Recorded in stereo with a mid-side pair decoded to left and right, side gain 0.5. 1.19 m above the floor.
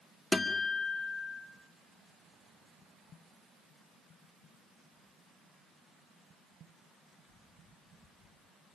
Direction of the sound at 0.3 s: 20° left.